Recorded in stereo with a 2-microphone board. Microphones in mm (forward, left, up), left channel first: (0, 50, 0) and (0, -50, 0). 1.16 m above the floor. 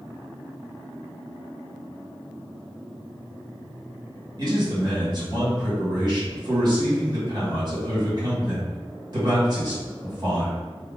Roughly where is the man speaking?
Right.